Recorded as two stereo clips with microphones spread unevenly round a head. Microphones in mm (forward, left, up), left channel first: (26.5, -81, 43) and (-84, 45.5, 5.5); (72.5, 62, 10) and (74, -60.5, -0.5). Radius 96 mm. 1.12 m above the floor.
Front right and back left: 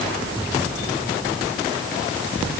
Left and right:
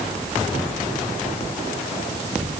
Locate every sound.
Only background noise.